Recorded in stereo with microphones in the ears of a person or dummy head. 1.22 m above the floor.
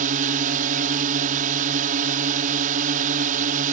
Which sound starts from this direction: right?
A drone, at 0.0 s.